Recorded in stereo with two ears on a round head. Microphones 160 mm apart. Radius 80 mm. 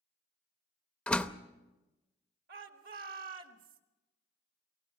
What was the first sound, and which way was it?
A door slam, 5° left (ahead or behind).